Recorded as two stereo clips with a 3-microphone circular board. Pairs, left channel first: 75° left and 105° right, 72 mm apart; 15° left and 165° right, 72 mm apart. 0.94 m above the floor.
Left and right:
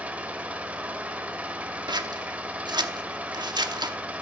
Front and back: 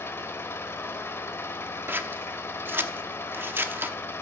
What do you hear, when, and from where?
0.0 s an engine running: 35° right, 1.2 m
1.9 s scissors: 105° right, 0.8 m